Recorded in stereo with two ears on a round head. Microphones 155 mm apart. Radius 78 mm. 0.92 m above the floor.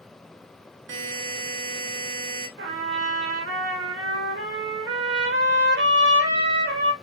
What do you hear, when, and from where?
0.9 s a buzzer: 75° right (ahead or behind), 0.8 m
2.6 s a trumpet: 75° right (ahead or behind), 0.8 m